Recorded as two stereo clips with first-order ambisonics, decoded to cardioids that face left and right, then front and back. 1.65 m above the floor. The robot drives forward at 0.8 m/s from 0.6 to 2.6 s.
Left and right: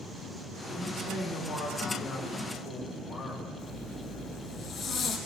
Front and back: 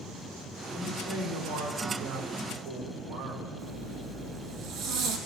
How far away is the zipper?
About 4 m.